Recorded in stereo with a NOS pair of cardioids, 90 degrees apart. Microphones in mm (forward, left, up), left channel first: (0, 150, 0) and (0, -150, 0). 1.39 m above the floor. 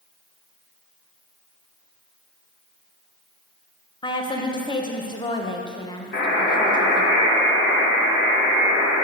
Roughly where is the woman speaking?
Ahead.